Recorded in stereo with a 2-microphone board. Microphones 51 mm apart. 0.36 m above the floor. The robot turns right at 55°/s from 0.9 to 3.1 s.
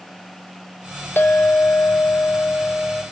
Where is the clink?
60° left, 0.7 m; by 3.0 s 165° left, 0.7 m.